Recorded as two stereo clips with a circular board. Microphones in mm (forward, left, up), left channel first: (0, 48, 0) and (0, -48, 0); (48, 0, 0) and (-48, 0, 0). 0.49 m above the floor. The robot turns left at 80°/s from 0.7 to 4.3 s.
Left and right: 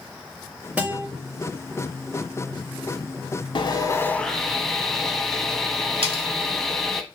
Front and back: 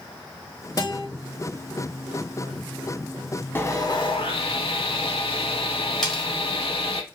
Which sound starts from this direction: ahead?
A guitar, at 0.8 s.